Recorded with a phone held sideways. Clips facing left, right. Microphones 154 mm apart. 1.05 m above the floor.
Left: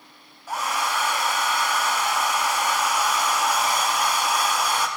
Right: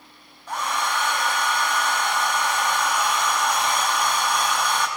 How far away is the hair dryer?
About 0.9 m.